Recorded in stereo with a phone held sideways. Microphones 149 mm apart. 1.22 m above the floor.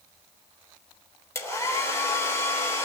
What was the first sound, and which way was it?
A hair dryer, 20° left (ahead or behind).